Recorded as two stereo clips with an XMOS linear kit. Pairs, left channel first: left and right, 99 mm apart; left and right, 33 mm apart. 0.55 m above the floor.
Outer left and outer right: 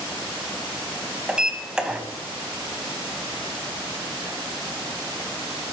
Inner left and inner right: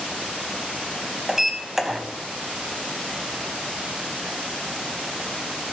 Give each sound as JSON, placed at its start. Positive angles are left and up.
{"t": 1.3, "sound": "a sliding door", "side_deg": -10, "distance_m": 0.8}